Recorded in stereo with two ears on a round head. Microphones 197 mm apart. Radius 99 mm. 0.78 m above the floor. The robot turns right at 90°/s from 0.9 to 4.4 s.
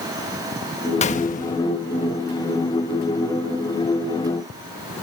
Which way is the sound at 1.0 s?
55° left.